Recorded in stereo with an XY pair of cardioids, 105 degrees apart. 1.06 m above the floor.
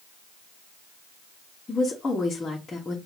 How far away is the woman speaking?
About 1.3 m.